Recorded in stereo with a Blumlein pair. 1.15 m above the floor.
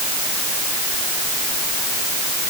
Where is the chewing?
I don't hear chewing.